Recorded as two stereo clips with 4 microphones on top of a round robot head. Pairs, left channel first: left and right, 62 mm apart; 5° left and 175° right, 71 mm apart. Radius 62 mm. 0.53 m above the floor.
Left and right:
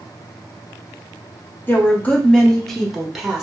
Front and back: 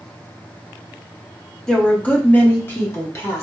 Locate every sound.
1.7 s a woman speaking: 75° left, 1.1 m; by 3.4 s 15° right, 1.3 m